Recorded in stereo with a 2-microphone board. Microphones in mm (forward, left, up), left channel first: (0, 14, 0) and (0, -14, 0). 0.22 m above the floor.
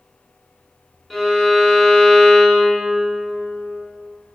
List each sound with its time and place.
1.1 s a violin: 5° left (ahead or behind), 0.9 m